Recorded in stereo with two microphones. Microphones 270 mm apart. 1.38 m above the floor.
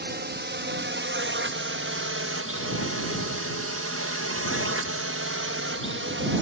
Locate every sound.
0.0 s a drone: 40° right (ahead or behind); by 6.4 s 45° right (ahead or behind)